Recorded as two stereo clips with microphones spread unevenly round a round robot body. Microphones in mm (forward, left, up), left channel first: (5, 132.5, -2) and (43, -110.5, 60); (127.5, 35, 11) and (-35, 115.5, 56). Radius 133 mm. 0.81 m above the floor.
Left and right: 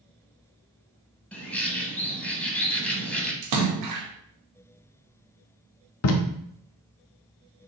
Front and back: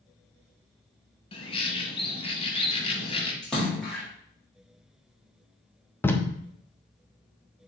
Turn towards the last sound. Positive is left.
turn(degrees=60)